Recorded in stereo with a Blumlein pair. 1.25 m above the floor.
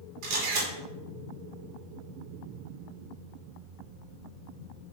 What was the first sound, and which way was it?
A camera shutter, 50° right.